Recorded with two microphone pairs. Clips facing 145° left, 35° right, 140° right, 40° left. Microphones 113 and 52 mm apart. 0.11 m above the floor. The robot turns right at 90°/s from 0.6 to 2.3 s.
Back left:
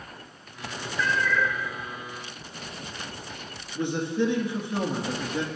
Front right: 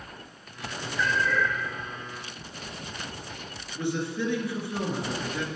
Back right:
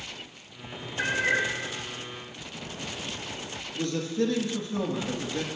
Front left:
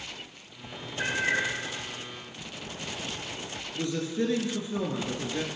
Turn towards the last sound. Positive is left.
turn(degrees=100)